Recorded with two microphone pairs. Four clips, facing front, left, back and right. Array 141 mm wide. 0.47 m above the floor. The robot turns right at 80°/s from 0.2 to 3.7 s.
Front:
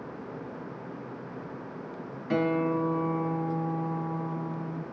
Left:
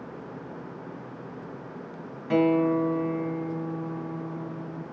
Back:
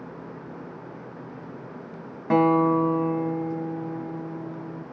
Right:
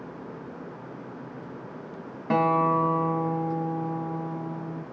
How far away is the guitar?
About 0.9 m.